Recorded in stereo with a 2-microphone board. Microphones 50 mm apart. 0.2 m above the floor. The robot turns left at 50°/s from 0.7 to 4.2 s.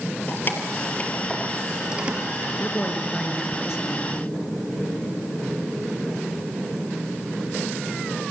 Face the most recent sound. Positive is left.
turn(degrees=-40)